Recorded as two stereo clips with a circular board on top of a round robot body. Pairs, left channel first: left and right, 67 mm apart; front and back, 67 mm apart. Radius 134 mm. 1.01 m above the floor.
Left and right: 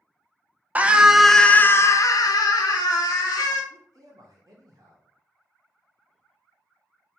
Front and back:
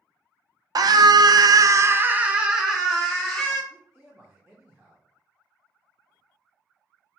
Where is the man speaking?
100° right, 0.8 m.